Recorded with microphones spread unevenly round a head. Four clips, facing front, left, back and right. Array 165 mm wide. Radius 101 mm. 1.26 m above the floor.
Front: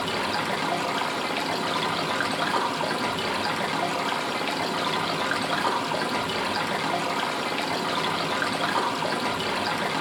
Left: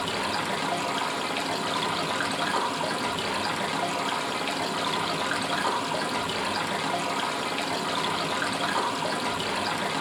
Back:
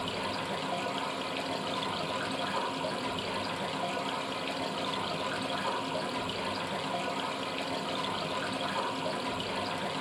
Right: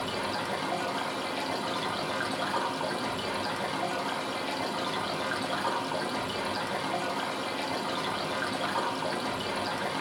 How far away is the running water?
About 0.7 m.